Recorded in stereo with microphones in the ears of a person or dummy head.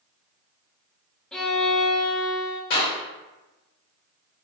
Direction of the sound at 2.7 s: 50° left (ahead or behind).